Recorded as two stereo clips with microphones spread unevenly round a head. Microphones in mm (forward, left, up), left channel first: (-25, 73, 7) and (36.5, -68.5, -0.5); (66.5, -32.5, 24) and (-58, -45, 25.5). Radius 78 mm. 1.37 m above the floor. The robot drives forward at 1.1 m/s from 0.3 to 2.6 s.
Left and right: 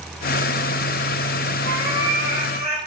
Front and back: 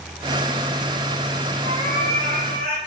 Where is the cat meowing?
155° left, 5 m; by 2.8 s 160° left, 6 m.